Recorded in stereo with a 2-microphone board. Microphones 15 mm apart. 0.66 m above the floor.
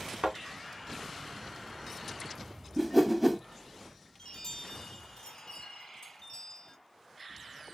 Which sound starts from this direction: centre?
A whoosh, at 2.8 s.